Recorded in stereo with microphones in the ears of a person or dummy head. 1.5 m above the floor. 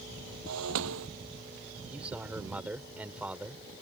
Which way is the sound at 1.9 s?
5° right (ahead or behind).